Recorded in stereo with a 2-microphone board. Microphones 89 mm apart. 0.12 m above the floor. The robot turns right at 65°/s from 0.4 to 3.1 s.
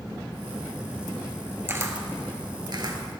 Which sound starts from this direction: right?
A camera shutter, at 1.7 s.